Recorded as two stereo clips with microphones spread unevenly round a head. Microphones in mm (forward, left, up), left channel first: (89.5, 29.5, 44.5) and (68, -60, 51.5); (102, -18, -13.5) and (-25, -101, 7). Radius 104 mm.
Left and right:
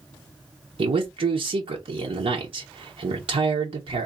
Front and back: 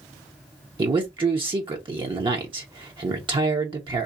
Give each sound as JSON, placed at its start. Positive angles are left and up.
{"t": 0.8, "sound": "a man speaking", "azimuth_deg": -85, "distance_m": 0.9}